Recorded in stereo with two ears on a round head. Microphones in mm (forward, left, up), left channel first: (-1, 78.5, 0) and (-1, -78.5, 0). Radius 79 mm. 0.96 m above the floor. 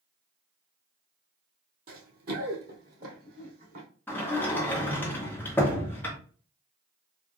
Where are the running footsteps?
50° right (ahead or behind), 1.6 m.